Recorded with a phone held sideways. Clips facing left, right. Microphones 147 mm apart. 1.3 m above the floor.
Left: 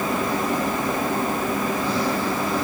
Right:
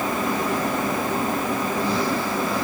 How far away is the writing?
I don't hear writing.